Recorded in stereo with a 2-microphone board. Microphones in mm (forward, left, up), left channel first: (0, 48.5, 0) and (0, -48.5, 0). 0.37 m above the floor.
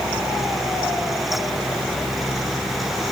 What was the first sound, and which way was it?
Only background noise.